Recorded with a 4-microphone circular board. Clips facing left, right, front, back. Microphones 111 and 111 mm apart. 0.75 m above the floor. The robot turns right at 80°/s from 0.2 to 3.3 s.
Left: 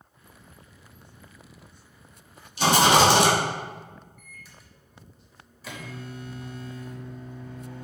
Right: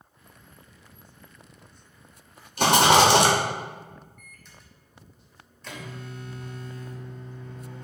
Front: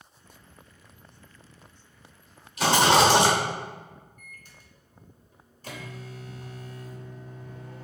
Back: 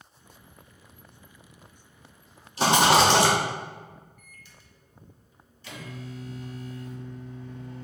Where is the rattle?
125° right, 0.9 m; by 3.3 s 65° right, 0.9 m.